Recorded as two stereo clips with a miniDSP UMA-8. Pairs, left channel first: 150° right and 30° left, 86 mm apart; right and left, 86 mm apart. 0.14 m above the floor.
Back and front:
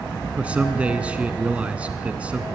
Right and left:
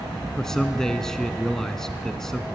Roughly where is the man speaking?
Ahead.